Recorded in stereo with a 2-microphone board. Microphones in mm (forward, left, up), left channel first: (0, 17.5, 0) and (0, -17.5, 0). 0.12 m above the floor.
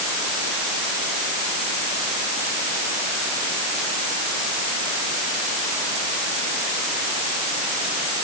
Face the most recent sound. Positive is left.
No sound to turn to.